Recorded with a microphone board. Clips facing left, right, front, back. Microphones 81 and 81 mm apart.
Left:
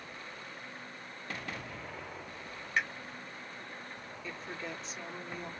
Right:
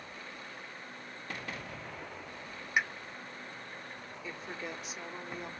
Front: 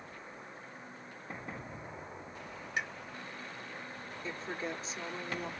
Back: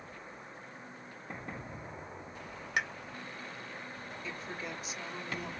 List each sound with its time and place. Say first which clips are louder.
2.8 s a pop: right 2 dB, back 3 dB; 165° right, 0.5 m
4.2 s a woman speaking: even, front 4 dB; 20° right, 1.3 m